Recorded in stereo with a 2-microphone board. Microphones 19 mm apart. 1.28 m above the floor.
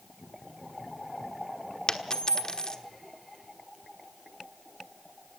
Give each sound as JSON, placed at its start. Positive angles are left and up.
{"t": 1.9, "sound": "a dropped coin", "side_deg": 30, "distance_m": 1.2}